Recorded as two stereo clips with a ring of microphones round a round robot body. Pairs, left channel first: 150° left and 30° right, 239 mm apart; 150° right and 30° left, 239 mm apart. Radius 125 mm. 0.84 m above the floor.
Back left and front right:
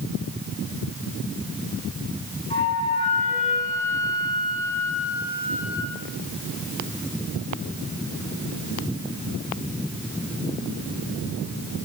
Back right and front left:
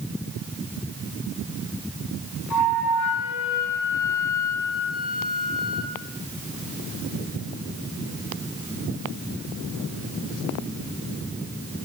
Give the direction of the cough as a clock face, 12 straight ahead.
I don't hear a cough.